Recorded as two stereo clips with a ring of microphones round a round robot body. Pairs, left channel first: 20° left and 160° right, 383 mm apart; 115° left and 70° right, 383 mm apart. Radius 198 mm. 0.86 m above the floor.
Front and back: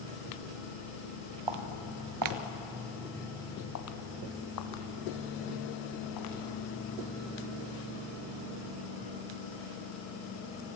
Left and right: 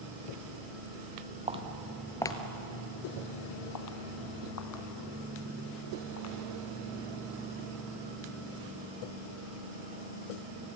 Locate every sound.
1.5 s footsteps: 140° right, 1.9 m; by 6.3 s 60° left, 5.5 m